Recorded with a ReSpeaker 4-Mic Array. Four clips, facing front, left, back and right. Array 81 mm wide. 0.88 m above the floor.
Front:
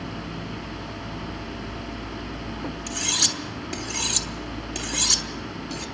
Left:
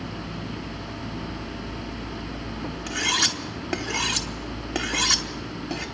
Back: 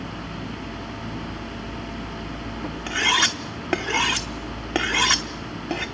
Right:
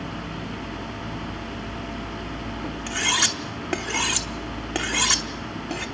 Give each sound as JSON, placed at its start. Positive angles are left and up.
{"t": 2.9, "sound": "cutlery clinking", "azimuth_deg": -175, "distance_m": 0.9}